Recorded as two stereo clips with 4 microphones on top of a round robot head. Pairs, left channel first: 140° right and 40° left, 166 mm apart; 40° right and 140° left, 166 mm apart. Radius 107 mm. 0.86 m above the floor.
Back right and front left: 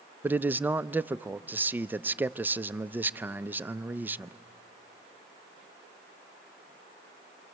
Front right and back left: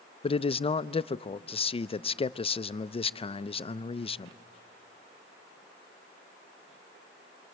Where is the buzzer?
I don't hear a buzzer.